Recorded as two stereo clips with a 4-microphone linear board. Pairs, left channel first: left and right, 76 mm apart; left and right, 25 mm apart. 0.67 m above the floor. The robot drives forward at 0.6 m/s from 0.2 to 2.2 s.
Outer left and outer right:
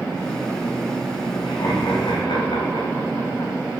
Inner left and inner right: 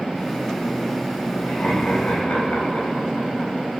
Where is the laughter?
75° left (ahead or behind), 4 m.